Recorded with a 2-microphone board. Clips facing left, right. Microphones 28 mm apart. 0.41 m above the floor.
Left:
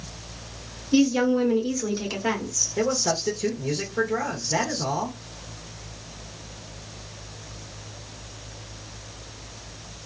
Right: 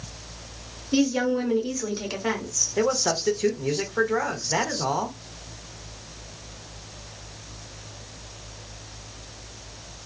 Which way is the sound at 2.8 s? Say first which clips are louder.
Right 1 dB; 25° right (ahead or behind).